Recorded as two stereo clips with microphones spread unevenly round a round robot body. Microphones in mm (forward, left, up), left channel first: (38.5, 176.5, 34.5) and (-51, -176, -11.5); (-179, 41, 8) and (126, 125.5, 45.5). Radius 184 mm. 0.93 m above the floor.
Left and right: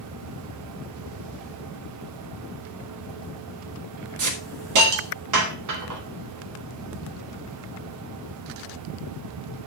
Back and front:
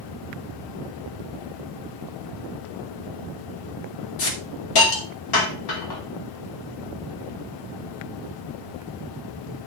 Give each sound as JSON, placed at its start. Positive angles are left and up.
{"t": 4.2, "sound": "a hiss", "azimuth_deg": -145, "distance_m": 2.0}